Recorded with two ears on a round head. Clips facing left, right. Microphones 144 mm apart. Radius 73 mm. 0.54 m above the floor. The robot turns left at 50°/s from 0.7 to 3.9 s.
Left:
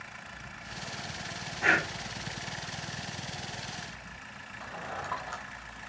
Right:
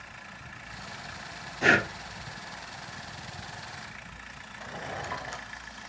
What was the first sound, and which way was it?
Breathing, 40° right (ahead or behind).